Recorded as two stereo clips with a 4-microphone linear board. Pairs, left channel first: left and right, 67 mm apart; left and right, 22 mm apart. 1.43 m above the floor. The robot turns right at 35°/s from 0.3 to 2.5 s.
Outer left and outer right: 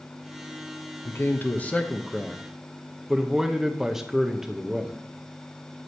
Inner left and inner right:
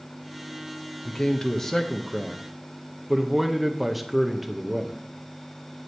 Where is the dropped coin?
I don't hear a dropped coin.